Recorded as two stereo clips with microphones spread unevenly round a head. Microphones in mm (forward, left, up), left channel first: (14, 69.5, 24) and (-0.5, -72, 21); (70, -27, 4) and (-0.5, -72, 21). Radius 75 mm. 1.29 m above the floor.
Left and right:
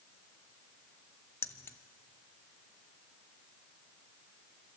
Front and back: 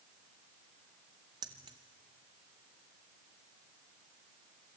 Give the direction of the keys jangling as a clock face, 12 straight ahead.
7 o'clock.